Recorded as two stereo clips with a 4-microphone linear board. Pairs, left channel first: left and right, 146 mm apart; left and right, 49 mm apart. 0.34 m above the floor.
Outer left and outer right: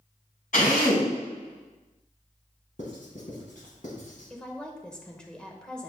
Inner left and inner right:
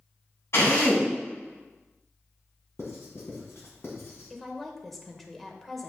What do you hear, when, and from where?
0.5 s a drill: 65° left (ahead or behind), 3 m
2.8 s writing: 60° left (ahead or behind), 2.5 m
4.3 s a woman speaking: 5° left (ahead or behind), 1.1 m